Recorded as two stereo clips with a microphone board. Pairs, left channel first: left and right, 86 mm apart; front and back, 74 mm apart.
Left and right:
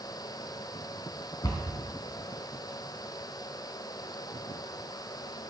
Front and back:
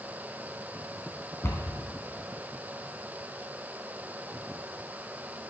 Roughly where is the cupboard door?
Ahead left.